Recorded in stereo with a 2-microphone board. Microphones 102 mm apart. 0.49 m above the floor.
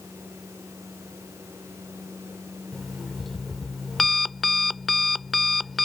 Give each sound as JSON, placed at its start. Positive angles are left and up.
{"t": 2.7, "sound": "an alarm clock", "side_deg": 0}